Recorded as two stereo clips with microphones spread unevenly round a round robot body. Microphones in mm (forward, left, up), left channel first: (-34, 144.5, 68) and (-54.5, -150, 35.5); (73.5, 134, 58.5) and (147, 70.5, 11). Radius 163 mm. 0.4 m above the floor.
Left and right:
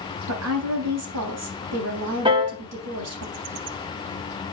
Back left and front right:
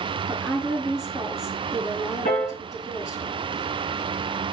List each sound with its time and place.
0.3 s a woman speaking: 120° right, 3 m
2.2 s a piano: 165° right, 2 m